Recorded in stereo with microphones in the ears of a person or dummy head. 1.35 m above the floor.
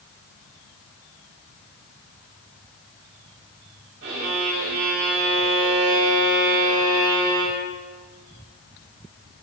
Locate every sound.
4.0 s a violin: 65° right (ahead or behind), 2 m